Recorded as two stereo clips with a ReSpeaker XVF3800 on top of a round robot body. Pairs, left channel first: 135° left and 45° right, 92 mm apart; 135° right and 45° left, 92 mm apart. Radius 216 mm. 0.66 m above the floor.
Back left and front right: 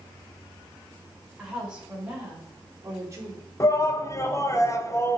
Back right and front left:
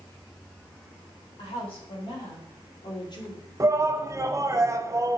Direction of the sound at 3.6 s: 90° left.